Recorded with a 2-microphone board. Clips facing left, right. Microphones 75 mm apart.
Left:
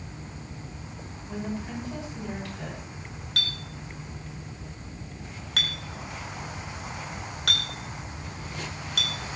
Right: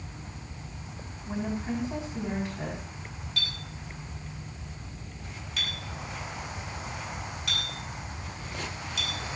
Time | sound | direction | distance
1.3 | a woman speaking | 20° right (ahead or behind) | 7 m
3.4 | a clink | 75° left (ahead or behind) | 2.5 m